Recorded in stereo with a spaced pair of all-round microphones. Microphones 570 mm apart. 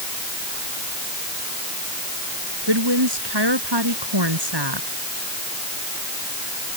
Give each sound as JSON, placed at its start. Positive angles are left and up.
{"t": 2.7, "sound": "a woman speaking", "side_deg": -45}